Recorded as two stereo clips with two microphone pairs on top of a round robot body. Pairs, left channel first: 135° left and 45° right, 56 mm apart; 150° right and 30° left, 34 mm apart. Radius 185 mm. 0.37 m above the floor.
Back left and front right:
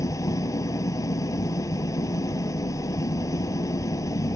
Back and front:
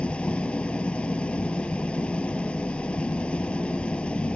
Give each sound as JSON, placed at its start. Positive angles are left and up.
{"t": 0.0, "sound": "an engine running", "azimuth_deg": 160}